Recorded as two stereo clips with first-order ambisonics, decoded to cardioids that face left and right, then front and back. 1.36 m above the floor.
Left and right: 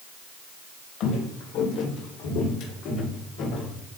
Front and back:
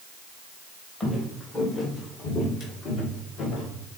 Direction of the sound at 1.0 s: 70° left.